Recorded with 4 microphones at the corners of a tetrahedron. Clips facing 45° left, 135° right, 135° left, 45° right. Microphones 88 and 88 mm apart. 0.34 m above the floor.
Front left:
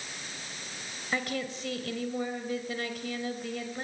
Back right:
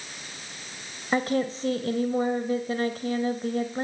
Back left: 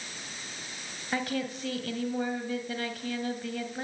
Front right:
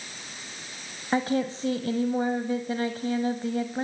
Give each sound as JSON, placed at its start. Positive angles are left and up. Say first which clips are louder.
{"t": 1.1, "sound": "a woman speaking", "louder": "back right 8 dB, front right 6 dB", "azimuth_deg": -95, "distance_m": 1.9}